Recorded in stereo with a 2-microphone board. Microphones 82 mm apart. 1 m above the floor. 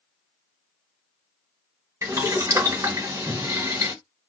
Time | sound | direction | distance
2.0 | boiling | 40° right (ahead or behind) | 1.2 m